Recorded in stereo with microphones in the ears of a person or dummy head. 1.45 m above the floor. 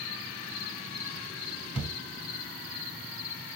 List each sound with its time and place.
1.8 s a thud: 10° right (ahead or behind), 2.5 m